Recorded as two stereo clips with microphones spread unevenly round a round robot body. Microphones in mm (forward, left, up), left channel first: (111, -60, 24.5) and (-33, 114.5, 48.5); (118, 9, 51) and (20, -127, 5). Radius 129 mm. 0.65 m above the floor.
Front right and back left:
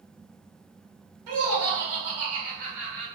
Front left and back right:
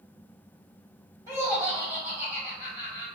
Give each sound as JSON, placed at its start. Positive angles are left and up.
{"t": 1.3, "sound": "laughter", "azimuth_deg": 140, "distance_m": 1.7}